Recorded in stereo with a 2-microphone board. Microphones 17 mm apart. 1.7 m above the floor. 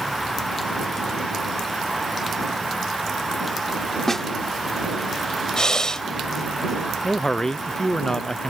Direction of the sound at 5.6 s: 50° left (ahead or behind).